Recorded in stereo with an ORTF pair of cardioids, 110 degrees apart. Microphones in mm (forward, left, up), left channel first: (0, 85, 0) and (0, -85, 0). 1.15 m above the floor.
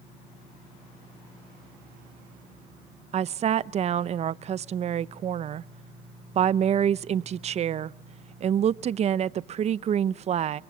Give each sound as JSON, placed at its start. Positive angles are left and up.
{"t": 3.1, "sound": "a woman speaking", "azimuth_deg": -40, "distance_m": 0.6}